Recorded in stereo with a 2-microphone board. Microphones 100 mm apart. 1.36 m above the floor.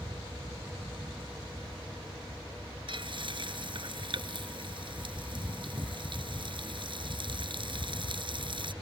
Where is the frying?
55° right (ahead or behind).